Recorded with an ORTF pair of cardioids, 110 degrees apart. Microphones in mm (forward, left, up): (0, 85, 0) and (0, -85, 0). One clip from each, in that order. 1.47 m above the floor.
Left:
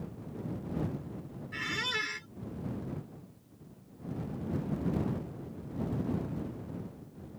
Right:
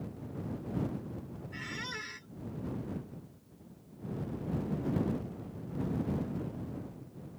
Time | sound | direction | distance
1.5 | a squeak | 40° left | ?